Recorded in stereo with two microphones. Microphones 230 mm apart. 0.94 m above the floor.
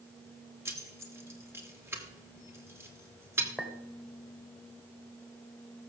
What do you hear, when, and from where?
0.7 s keys jangling: 10° right (ahead or behind), 2 m
3.6 s a clink: centre (ahead or behind), 2 m